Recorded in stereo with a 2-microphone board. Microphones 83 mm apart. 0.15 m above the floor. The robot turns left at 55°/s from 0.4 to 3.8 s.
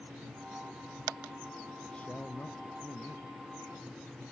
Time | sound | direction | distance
1.8 | a man speaking | 175° left | ?